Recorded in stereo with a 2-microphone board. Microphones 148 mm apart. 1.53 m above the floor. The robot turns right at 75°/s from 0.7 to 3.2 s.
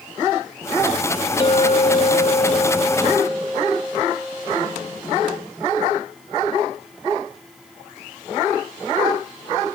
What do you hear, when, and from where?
1.4 s a clink: 50° left, 0.5 m; by 5.0 s 175° right, 0.5 m